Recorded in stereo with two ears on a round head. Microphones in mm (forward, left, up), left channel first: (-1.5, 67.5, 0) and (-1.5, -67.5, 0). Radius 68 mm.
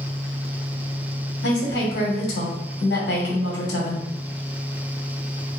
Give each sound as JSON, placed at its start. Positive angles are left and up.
{"t": 1.4, "sound": "a woman speaking", "side_deg": 75, "distance_m": 1.3}